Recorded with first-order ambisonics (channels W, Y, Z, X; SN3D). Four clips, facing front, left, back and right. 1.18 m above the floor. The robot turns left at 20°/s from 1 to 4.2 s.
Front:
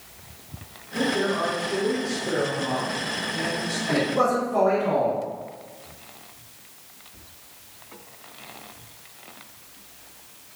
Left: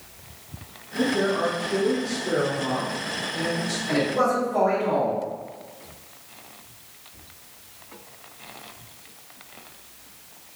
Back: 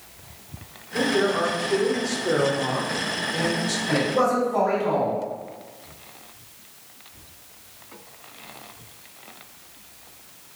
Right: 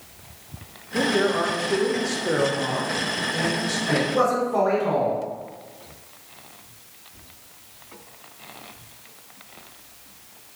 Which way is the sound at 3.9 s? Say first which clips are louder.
Right 1 dB, even; 90° right.